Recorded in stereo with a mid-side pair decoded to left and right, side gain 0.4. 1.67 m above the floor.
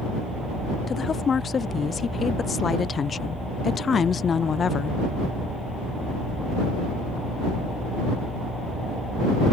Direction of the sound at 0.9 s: 45° left.